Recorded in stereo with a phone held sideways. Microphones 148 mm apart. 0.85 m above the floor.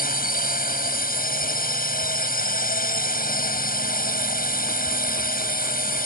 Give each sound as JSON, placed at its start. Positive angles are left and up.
{"t": 0.0, "sound": "a drone", "side_deg": 80}